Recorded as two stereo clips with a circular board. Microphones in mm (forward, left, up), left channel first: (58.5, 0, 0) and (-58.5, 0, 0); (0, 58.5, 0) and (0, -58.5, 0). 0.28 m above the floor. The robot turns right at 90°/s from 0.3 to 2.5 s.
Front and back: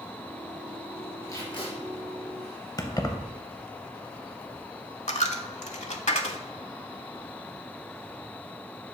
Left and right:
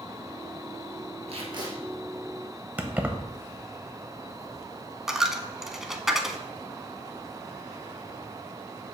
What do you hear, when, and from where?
1.3 s tape being pulled: 65° right, 1.8 m; by 1.7 s 25° right, 1.8 m
2.8 s keys jangling: 25° right, 0.7 m
5.1 s a dropped coin: 5° right, 0.6 m